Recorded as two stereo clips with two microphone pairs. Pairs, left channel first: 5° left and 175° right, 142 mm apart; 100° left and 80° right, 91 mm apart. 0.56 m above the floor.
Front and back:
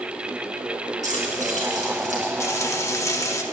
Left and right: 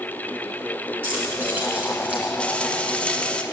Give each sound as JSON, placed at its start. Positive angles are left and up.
{"t": 1.0, "sound": "keys jangling", "azimuth_deg": -145, "distance_m": 4.0}
{"t": 2.4, "sound": "frying", "azimuth_deg": 45, "distance_m": 1.0}